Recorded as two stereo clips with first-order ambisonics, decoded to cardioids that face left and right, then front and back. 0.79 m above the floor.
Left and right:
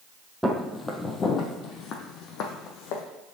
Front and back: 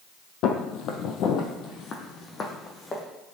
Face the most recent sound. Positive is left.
turn(degrees=75)